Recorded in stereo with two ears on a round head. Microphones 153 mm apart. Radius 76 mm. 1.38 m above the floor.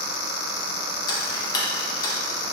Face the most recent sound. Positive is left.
turn(degrees=25)  # may be behind; listen again after turning